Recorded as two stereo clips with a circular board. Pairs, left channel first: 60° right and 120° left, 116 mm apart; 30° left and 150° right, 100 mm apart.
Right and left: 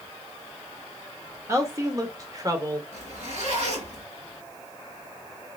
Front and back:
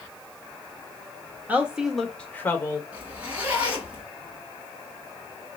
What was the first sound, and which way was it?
A woman speaking, 155° left.